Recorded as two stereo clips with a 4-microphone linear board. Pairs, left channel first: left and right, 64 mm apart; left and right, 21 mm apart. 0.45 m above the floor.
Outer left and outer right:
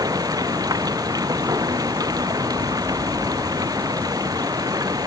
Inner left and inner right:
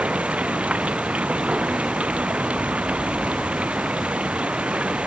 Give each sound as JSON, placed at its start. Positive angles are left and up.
{"t": 0.0, "sound": "running water", "side_deg": -75}